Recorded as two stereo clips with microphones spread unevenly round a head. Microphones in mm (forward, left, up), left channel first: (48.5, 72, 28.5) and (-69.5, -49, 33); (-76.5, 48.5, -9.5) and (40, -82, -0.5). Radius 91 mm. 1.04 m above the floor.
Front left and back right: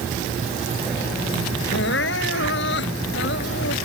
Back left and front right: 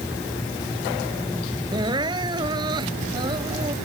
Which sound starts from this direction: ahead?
Crying, at 1.7 s.